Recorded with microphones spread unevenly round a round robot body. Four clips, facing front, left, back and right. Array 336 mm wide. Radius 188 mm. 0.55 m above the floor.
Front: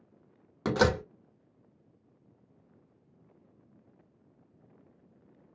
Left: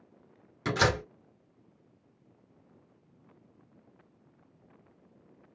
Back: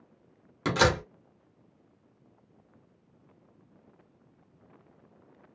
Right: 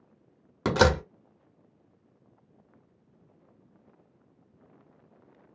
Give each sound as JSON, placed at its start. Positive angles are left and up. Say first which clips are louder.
{"t": 0.7, "sound": "a door slam", "louder": "right 5 dB, back 1 dB", "azimuth_deg": -100, "distance_m": 1.1}